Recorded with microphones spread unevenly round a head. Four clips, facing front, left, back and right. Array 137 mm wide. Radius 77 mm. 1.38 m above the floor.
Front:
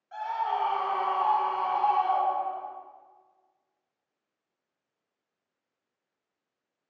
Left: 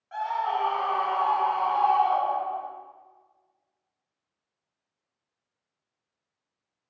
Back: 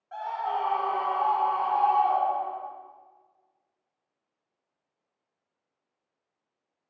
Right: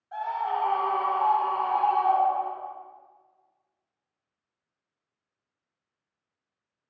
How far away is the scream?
About 3.5 m.